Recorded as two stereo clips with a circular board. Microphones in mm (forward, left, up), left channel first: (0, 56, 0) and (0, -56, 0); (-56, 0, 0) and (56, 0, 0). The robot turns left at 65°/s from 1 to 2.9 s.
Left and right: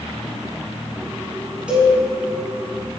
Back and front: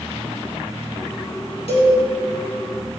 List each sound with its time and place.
1.7 s a cowbell: 170° right, 1.9 m; by 1.9 s 175° left, 1.9 m